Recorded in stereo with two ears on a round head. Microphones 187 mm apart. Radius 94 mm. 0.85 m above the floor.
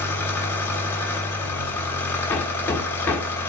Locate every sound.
0.0 s an engine running: 10° left (ahead or behind), 2 m
2.3 s hammering: 10° left (ahead or behind), 1.7 m